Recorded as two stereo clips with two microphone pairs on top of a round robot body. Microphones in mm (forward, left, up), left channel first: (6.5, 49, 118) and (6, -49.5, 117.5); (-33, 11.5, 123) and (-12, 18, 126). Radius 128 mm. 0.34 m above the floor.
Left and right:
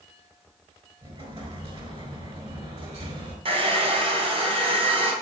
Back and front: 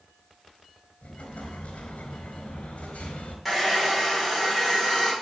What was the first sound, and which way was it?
An explosion, 125° right.